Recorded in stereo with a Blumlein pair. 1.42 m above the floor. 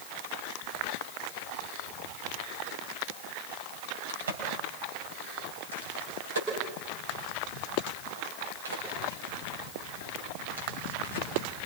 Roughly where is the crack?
Ahead right.